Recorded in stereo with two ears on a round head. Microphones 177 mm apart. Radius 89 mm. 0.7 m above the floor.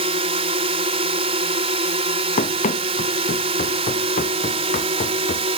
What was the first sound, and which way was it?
A drone, 30° right (ahead or behind).